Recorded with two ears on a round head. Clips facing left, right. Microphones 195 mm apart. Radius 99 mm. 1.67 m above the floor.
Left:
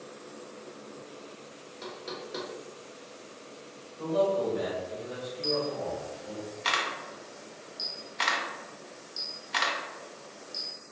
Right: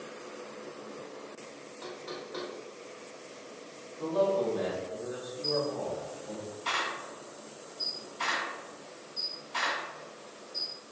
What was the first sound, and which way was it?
Knocking, 30° left (ahead or behind).